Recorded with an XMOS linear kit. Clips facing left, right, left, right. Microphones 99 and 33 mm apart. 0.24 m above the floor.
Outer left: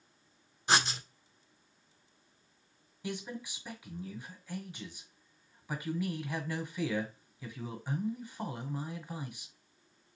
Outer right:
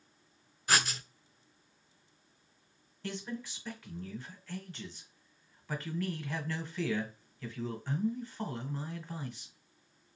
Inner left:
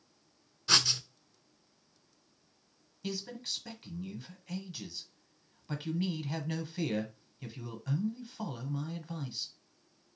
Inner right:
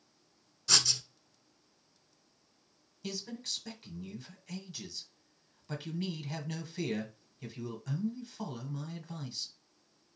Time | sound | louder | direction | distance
0.7 | writing | outer left 2 dB, inner left 2 dB | 25° left (ahead or behind) | 0.6 m
3.0 | a man speaking | even, inner left 1 dB | 10° left (ahead or behind) | 1.2 m